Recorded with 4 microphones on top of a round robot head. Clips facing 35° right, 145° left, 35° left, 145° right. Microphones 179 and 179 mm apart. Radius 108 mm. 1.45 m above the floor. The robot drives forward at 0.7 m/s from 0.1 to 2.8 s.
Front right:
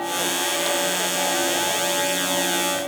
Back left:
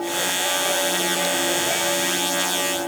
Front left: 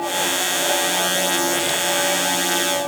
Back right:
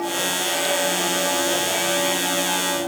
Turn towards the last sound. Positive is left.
No sound to turn to.